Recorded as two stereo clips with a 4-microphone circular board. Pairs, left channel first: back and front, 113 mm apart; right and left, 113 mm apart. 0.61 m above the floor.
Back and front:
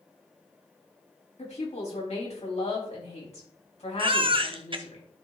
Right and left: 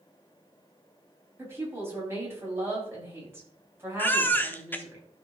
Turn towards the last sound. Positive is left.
turn(degrees=-20)